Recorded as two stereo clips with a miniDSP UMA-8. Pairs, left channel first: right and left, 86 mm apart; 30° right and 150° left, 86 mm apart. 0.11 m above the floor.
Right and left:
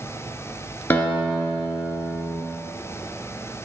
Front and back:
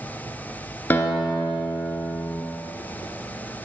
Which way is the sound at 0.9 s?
60° right.